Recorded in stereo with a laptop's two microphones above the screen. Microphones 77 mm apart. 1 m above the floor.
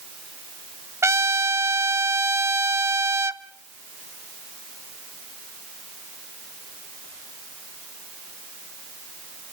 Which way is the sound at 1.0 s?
35° right (ahead or behind).